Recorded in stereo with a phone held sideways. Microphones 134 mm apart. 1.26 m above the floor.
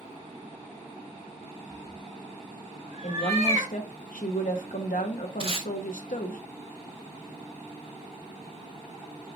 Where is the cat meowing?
25° right (ahead or behind), 1.2 m; by 3.7 s 50° right (ahead or behind), 2 m.